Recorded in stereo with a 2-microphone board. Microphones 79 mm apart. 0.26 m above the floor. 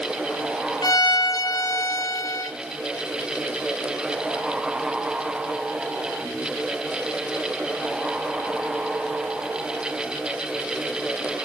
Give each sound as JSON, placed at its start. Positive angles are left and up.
{"t": 0.8, "sound": "a violin", "side_deg": 60, "distance_m": 1.4}